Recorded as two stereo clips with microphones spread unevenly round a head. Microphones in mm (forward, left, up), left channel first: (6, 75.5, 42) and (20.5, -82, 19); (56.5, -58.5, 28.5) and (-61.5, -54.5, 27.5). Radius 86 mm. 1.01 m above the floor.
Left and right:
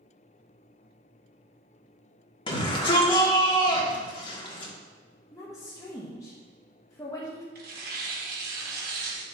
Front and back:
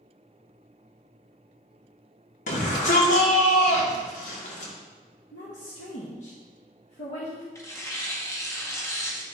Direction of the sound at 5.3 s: 20° left.